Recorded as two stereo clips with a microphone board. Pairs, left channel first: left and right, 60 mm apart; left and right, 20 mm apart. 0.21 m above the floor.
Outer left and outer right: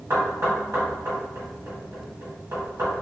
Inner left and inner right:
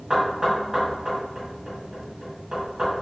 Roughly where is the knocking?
Right.